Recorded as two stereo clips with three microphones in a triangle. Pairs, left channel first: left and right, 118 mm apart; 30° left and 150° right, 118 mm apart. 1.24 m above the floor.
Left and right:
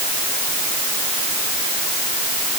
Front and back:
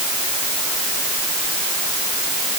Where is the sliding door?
I don't hear a sliding door.